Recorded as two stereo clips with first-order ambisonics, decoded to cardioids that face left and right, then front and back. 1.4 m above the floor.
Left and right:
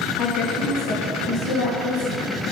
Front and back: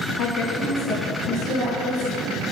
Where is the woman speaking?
55° left, 0.9 m; by 2.3 s 100° left, 3 m.